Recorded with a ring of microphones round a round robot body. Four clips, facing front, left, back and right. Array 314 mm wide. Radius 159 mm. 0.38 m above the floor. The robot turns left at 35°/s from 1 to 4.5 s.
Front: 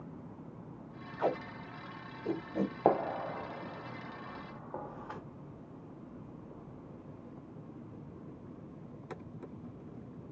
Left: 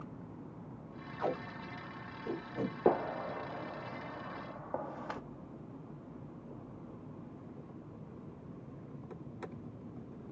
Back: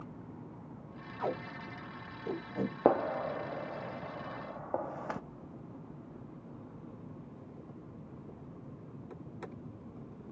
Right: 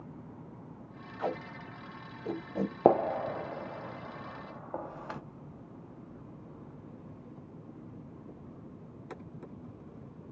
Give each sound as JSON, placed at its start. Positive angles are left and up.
{"t": 1.2, "sound": "tape being pulled", "azimuth_deg": -5, "distance_m": 1.9}
{"t": 2.9, "sound": "a gunshot", "azimuth_deg": -115, "distance_m": 0.6}